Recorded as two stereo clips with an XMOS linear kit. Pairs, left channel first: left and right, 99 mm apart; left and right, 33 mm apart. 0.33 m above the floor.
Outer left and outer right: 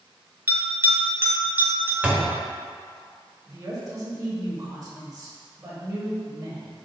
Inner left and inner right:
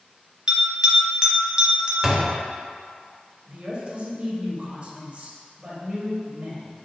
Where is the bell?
25° right (ahead or behind), 0.8 m.